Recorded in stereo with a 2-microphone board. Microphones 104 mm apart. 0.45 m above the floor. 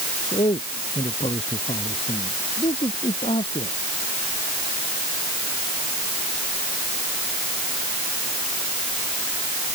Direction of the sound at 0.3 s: 70° left (ahead or behind).